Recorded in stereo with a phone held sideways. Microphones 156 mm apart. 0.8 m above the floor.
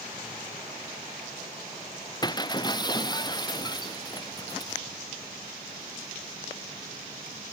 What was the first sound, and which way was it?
Breaking glass, 25° left (ahead or behind).